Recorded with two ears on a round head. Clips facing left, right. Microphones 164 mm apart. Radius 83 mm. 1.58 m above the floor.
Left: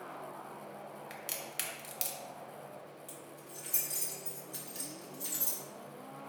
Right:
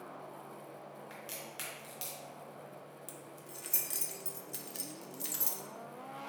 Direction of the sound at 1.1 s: 20° left (ahead or behind).